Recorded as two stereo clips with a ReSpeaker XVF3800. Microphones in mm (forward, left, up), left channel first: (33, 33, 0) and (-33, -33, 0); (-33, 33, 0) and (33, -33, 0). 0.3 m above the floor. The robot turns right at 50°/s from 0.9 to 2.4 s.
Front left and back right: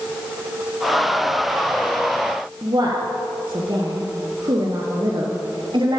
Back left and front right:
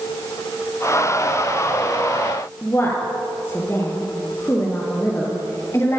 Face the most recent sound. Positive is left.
turn(degrees=-165)